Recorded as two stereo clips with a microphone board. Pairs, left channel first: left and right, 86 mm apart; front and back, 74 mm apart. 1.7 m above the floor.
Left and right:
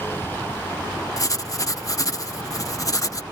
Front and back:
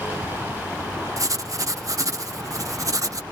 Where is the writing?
140° left.